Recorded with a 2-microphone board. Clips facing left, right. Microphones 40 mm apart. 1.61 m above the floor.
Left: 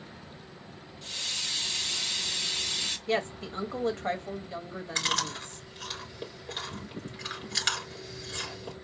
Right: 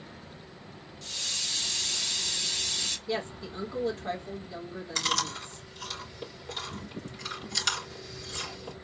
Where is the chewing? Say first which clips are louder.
Even; 30° left (ahead or behind), 3.5 m.